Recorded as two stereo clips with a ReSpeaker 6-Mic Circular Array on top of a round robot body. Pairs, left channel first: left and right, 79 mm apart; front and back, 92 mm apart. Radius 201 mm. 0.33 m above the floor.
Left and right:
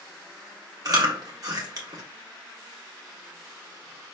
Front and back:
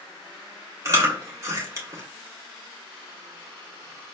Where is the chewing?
125° right, 1.5 m.